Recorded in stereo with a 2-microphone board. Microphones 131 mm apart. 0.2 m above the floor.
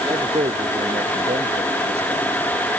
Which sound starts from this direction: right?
A man speaking, at 0.1 s.